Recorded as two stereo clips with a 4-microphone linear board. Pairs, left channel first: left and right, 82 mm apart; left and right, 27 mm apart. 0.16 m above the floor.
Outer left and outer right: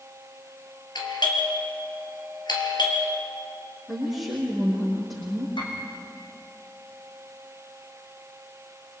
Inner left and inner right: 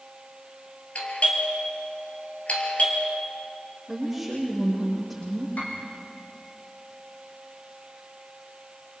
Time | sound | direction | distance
0.9 | a doorbell | 60° left (ahead or behind) | 3.5 m
3.9 | a woman speaking | centre (ahead or behind) | 7 m
5.6 | a piano | 75° left (ahead or behind) | 5 m